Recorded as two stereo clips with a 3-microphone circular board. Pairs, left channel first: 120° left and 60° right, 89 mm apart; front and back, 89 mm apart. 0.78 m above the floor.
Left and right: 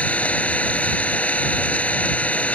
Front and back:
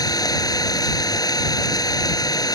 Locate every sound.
0.0 s an engine running: 45° left